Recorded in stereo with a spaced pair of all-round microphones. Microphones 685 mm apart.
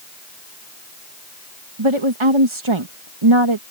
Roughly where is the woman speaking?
Right.